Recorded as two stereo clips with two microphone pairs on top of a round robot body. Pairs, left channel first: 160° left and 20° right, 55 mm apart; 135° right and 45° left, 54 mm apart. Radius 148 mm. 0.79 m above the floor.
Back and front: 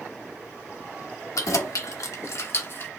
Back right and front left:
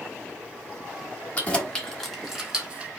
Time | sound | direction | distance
1.4 | keys jangling | 160° left | 1.2 m